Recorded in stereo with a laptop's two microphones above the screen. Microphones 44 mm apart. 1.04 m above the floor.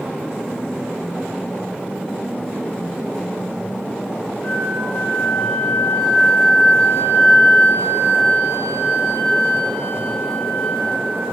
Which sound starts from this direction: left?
A flute, at 4.4 s.